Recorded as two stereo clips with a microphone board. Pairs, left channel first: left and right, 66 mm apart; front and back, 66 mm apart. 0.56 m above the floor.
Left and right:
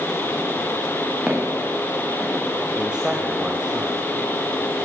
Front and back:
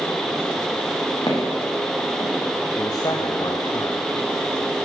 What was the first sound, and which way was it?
Footsteps, 5° right.